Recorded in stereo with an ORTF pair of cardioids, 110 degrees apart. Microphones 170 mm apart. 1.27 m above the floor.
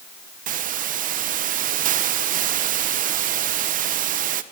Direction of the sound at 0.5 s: 55° right.